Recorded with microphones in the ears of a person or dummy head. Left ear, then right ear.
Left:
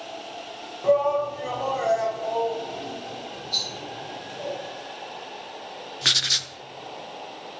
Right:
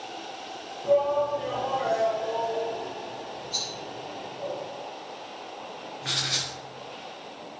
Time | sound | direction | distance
0.8 | a shout | 45° left (ahead or behind) | 1.0 m
3.5 | a rattle | 25° left (ahead or behind) | 2 m
6.0 | writing | 50° left (ahead or behind) | 0.6 m